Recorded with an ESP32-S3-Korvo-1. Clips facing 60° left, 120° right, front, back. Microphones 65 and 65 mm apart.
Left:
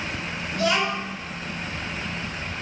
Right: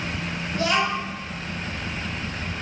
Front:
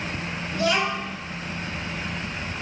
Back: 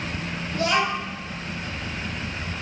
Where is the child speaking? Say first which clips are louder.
Even, back 1 dB; 170° right, 1.0 m.